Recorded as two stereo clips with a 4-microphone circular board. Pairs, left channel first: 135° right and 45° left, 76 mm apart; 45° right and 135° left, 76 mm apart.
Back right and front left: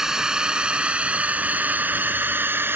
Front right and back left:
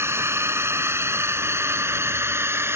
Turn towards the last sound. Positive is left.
turn(degrees=95)